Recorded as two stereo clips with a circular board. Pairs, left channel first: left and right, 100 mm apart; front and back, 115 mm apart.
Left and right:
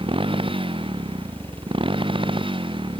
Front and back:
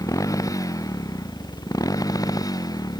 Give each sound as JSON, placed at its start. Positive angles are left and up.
{"t": 0.0, "sound": "a motorcycle", "azimuth_deg": -60}